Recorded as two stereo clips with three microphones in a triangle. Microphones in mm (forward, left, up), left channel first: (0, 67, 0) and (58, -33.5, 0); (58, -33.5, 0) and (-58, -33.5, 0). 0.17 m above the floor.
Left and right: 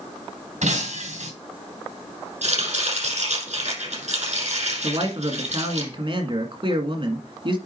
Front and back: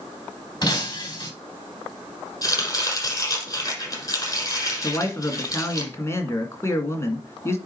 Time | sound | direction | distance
0.6 | breaking glass | 60° right | 4.5 m
2.4 | chopping | 60° right | 6 m
4.8 | a man speaking | 55° right | 1.9 m